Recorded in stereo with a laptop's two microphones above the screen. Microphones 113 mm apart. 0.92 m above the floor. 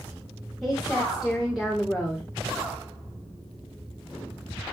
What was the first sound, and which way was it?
A woman speaking, centre (ahead or behind).